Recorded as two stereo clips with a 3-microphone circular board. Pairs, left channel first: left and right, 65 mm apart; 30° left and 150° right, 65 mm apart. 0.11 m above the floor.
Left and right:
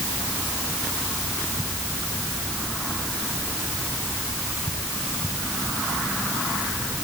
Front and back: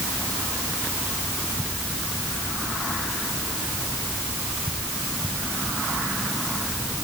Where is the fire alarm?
I don't hear a fire alarm.